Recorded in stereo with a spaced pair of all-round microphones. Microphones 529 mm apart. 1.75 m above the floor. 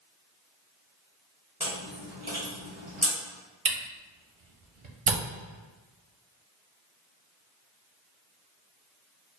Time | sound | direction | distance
1.6 | chewing | 15° right (ahead or behind) | 1.9 m
3.6 | a camera shutter | 65° right (ahead or behind) | 0.7 m